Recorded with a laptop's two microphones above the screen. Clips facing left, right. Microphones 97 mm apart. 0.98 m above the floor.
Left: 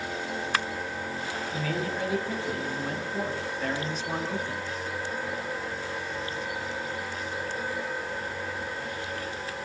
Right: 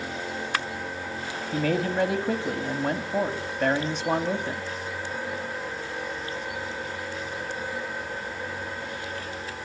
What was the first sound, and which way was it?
A man speaking, 75° right (ahead or behind).